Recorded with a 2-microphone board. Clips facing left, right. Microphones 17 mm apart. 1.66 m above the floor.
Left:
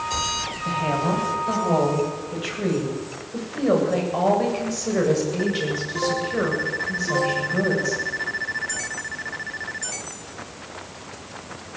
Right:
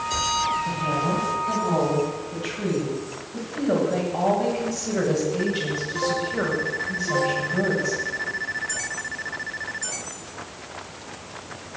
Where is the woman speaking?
65° left (ahead or behind), 10 m; by 8.0 s 20° left (ahead or behind), 8 m.